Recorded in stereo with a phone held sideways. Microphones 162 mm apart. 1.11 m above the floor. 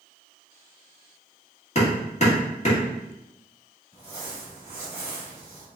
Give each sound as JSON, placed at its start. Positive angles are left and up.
{"t": 1.8, "sound": "hammering", "side_deg": 45, "distance_m": 1.3}
{"t": 3.9, "sound": "crumpling", "side_deg": 45, "distance_m": 1.8}